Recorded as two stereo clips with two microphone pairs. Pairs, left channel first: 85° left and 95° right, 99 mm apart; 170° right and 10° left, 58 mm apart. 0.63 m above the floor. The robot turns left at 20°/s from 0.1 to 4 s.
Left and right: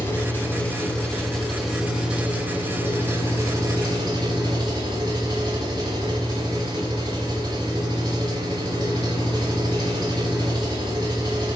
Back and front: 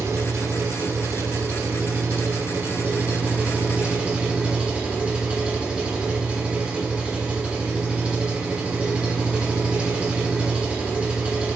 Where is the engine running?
25° left, 2.5 m; by 11.6 s 55° right, 2.5 m.